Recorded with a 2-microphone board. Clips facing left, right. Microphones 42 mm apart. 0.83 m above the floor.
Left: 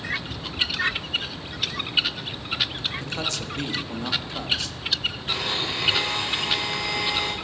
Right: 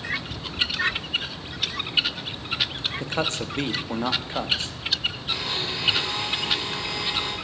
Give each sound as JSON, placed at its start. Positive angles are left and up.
{"t": 3.0, "sound": "a man speaking", "side_deg": -30, "distance_m": 1.0}
{"t": 5.3, "sound": "a blender", "side_deg": 55, "distance_m": 4.0}